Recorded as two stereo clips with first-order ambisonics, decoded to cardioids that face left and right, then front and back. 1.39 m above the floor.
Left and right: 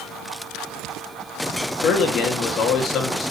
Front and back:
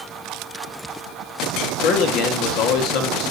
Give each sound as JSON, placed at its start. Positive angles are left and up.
{"t": 1.7, "sound": "a man speaking", "azimuth_deg": 30, "distance_m": 3.0}